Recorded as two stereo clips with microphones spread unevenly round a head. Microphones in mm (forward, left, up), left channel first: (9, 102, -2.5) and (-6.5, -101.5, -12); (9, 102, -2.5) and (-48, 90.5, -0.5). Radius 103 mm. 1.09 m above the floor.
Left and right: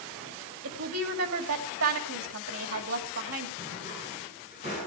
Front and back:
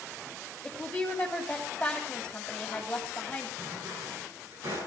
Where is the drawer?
155° right, 7 m.